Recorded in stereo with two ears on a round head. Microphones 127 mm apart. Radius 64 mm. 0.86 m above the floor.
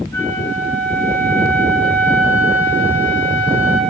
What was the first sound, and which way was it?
A flute, 20° left (ahead or behind).